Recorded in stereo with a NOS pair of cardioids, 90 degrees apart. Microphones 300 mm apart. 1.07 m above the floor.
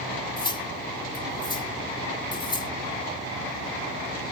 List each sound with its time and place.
0.4 s cutlery clinking: 15° left